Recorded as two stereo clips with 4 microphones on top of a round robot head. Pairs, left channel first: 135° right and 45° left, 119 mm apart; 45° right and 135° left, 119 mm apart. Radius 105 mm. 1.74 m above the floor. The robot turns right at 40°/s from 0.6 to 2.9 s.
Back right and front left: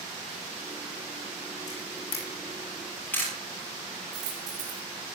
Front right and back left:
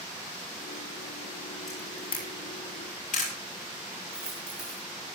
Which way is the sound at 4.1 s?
55° left.